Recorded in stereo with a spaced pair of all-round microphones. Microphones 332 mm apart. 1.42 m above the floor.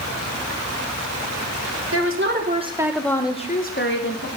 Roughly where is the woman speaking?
Right.